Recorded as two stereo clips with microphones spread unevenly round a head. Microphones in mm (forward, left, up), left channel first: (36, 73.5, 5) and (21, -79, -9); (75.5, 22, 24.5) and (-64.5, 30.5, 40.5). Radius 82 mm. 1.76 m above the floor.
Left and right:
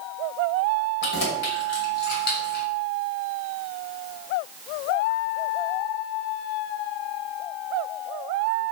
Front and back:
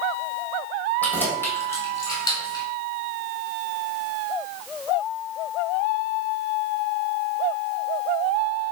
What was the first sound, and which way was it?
Keys jangling, 75° left.